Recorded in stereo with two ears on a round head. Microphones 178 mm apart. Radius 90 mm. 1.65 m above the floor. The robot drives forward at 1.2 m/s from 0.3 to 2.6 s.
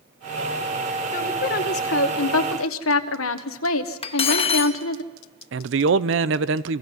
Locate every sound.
1.1 s a woman speaking: 40° left (ahead or behind), 2 m; by 5.0 s 80° left, 1.3 m
4.0 s cutlery clinking: 30° left (ahead or behind), 1.1 m
5.5 s a man speaking: 65° right (ahead or behind), 0.7 m